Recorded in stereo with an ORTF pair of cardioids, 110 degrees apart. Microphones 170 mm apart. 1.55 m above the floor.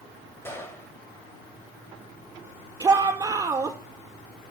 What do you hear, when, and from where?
0.5 s a gunshot: 15° left, 3.5 m
2.8 s a shout: 20° right, 5 m